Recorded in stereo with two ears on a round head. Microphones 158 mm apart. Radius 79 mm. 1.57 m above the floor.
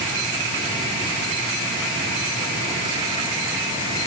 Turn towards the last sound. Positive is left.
No sound to turn to.